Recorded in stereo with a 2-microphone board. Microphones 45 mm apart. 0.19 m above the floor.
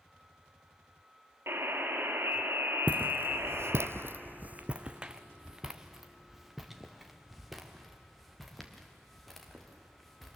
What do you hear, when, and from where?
1.5 s a buzzer: 65° right (ahead or behind), 2.5 m
2.9 s footsteps: 40° right (ahead or behind), 0.8 m; by 10.4 s centre (ahead or behind), 4.5 m